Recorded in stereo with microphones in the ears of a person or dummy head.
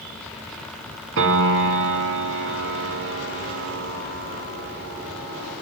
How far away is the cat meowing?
I don't hear a cat meowing.